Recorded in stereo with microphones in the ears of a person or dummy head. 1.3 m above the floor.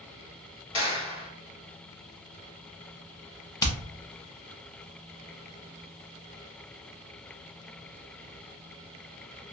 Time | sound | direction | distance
0.7 | a clap | 25° left (ahead or behind) | 1.5 m
3.6 | hammering | 20° left (ahead or behind) | 0.7 m